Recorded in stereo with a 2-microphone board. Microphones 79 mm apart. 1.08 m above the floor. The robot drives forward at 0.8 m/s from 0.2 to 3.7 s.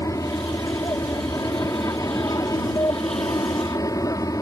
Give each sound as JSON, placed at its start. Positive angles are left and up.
{"t": 0.0, "sound": "an aircraft", "side_deg": 40}